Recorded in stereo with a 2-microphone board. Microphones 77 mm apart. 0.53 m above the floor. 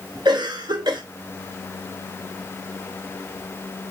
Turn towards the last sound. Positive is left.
turn(degrees=-65)  # may be behind; listen again after turning